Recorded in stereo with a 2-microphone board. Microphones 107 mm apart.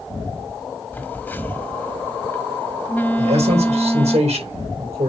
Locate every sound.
0.9 s a phone buzzing: 20° left (ahead or behind), 1.2 m
3.2 s a man speaking: 85° right, 4.5 m